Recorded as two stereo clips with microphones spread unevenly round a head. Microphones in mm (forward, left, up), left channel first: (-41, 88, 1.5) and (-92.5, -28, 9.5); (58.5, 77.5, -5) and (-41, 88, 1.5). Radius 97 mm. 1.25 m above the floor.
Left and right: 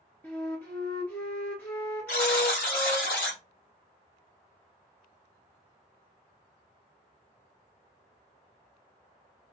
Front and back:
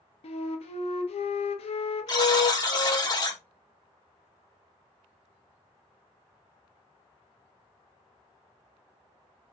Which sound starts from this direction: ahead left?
A buzzer, at 2.1 s.